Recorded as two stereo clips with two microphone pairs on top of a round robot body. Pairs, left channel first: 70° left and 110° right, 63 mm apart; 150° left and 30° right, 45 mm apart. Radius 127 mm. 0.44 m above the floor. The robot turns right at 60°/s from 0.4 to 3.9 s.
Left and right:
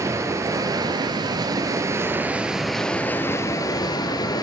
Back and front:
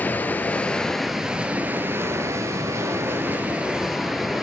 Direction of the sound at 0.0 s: 155° right.